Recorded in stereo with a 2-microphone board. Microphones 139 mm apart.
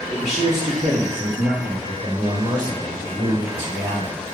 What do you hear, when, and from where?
0.1 s a man speaking: 40° right (ahead or behind), 1.1 m; by 4.2 s 55° right (ahead or behind), 3 m